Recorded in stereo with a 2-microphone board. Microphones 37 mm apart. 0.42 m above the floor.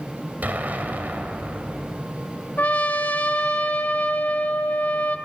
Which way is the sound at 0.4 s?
55° right (ahead or behind).